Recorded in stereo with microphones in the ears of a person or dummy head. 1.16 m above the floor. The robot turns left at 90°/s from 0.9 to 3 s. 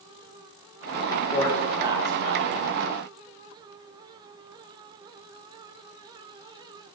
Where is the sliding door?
No sliding door in this recording.